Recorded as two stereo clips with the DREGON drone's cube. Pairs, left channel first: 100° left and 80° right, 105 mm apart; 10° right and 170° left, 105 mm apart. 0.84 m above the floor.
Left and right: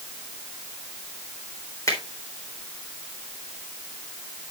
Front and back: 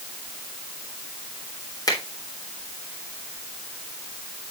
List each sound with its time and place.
1.9 s a finger snap: 40° left, 3.5 m